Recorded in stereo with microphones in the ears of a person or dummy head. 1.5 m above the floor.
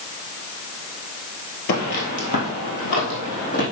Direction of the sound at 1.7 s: 40° left (ahead or behind).